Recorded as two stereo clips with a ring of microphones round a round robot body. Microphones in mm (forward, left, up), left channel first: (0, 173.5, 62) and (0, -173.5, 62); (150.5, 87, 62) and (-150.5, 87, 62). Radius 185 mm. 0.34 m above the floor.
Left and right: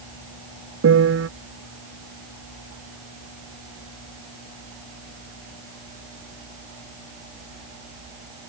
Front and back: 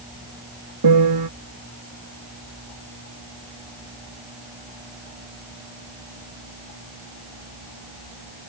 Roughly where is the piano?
Behind right.